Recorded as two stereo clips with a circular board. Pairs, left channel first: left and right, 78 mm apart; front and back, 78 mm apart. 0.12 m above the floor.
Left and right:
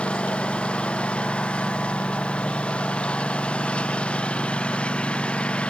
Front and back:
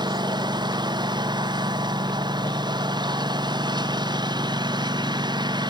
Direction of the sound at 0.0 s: 165° left.